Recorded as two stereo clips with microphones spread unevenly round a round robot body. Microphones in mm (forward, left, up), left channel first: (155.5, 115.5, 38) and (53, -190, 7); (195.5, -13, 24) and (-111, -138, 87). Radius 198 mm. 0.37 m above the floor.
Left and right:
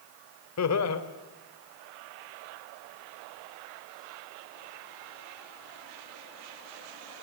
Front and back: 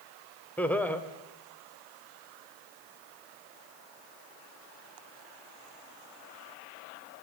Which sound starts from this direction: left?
Laughter, at 0.6 s.